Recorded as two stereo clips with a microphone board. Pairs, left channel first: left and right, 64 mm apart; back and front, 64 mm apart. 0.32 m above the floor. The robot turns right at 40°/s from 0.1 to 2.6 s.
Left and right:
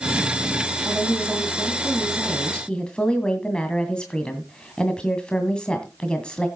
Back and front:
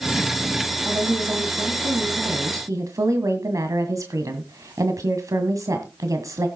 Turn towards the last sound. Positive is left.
turn(degrees=15)